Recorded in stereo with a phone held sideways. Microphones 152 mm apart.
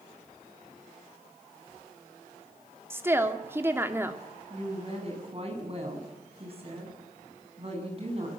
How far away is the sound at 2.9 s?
About 2 m.